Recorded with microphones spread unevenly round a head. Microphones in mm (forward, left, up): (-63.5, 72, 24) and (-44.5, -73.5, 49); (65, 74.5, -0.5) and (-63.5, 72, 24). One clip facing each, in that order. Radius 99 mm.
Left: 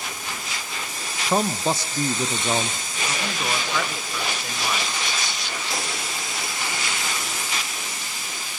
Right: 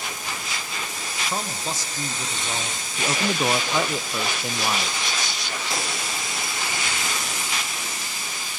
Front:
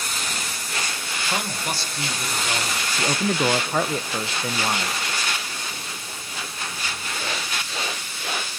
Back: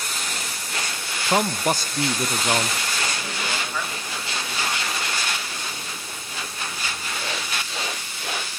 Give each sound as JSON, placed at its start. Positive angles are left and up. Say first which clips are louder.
{"t": 1.3, "sound": "a man speaking", "louder": "left 9 dB, back 8 dB", "azimuth_deg": 130, "distance_m": 0.7}
{"t": 3.0, "sound": "a man speaking", "louder": "right 5 dB, front 7 dB", "azimuth_deg": -10, "distance_m": 0.9}